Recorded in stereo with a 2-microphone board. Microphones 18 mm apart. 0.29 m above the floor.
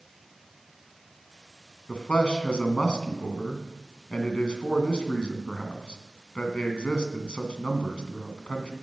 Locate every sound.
1.9 s a man speaking: 60° left (ahead or behind), 2 m